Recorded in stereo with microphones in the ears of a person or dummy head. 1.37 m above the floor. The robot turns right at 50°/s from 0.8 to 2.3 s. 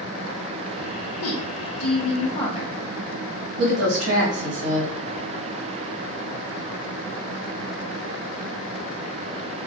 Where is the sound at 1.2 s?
100° left, 0.6 m; by 2.7 s 150° left, 0.6 m.